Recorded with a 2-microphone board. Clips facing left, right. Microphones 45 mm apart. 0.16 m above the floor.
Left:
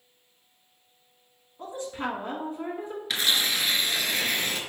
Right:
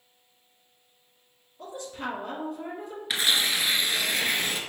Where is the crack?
No crack in this recording.